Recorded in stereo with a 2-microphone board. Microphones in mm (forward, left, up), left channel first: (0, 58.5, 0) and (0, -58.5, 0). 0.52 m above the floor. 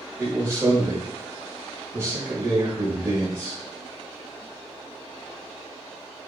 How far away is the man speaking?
About 1.5 m.